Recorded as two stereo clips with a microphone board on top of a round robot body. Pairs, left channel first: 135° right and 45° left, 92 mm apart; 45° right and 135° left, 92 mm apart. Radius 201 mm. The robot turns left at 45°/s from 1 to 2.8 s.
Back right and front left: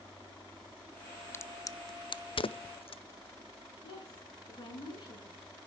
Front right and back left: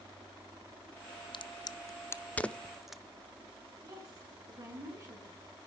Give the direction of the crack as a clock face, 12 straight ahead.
2 o'clock.